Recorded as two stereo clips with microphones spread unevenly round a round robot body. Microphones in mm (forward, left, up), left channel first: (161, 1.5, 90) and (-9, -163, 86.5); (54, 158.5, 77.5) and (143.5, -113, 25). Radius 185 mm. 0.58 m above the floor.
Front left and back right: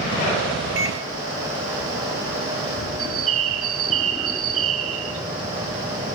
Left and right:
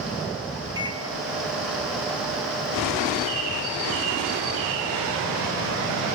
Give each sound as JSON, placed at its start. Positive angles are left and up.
{"t": 0.8, "sound": "a microwave", "azimuth_deg": -140, "distance_m": 1.2}
{"t": 3.0, "sound": "a bird", "azimuth_deg": -120, "distance_m": 1.8}